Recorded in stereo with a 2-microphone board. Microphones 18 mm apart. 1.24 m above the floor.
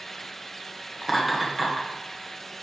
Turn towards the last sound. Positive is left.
turn(degrees=-5)  # may be behind; listen again after turning